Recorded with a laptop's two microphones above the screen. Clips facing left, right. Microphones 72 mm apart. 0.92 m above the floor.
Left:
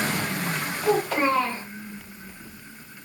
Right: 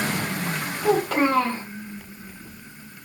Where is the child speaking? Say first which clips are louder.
Right 2 dB; 55° right (ahead or behind), 1.2 m.